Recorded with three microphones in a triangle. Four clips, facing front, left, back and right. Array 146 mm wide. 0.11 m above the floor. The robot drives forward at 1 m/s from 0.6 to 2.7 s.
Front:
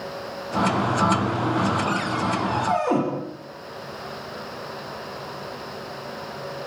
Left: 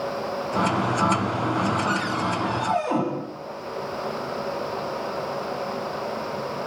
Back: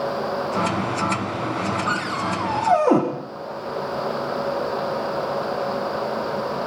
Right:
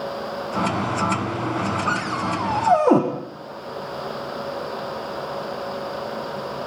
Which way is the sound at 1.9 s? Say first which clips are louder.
Right 1 dB, even; 115° right.